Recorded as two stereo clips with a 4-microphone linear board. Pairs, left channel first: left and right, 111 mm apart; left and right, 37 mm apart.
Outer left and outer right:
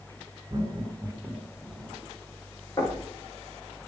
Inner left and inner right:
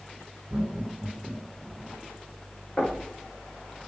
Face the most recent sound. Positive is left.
turn(degrees=35)  # may be behind; listen again after turning